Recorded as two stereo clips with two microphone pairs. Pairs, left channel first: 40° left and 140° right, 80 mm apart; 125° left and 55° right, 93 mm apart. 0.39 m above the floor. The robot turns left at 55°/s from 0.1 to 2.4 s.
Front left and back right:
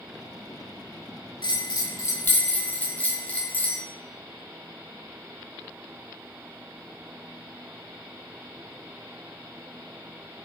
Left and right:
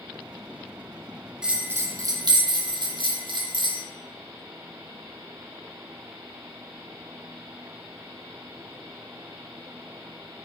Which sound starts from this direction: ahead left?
A bell, at 1.4 s.